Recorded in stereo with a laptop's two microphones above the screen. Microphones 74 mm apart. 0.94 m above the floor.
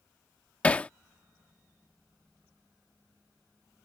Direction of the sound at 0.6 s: 20° left (ahead or behind).